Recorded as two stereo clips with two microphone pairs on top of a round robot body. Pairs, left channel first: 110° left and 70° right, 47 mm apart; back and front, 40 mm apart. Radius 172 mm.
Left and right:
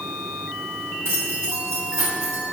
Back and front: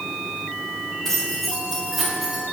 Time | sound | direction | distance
1.1 | keys jangling | 100° right | 3 m